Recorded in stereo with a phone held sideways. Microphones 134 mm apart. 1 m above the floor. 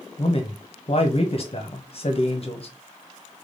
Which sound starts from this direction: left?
A man speaking, at 0.2 s.